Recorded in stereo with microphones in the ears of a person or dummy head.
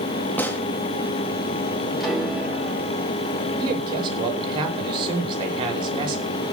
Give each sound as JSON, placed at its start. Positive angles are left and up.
{"t": 0.4, "sound": "a gunshot", "side_deg": 10, "distance_m": 1.6}
{"t": 2.0, "sound": "a piano", "side_deg": 0, "distance_m": 7.5}
{"t": 3.6, "sound": "a man speaking", "side_deg": -30, "distance_m": 5.5}